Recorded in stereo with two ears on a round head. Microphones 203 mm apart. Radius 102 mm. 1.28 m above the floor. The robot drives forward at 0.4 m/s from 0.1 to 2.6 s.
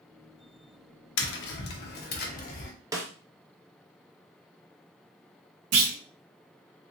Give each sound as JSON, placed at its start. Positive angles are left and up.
{"t": 1.2, "sound": "tapping", "side_deg": 55, "distance_m": 0.7}
{"t": 2.9, "sound": "a snare drum", "side_deg": -15, "distance_m": 0.6}
{"t": 5.7, "sound": "a clunk", "side_deg": -75, "distance_m": 1.2}